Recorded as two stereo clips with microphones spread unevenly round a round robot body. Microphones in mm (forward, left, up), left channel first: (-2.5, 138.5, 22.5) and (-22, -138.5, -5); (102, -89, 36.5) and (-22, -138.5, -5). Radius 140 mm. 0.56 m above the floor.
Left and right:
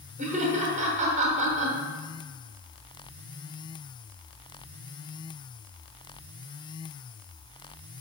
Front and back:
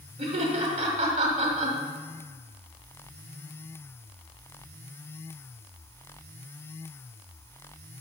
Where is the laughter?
155° right, 1.6 m.